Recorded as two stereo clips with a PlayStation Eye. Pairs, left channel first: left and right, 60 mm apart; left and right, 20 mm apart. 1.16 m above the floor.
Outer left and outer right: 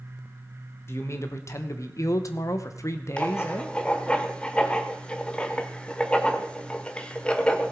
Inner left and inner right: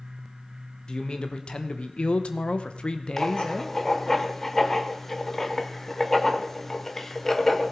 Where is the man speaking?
45° left (ahead or behind), 1.5 m; by 3.8 s 35° left (ahead or behind), 1.1 m.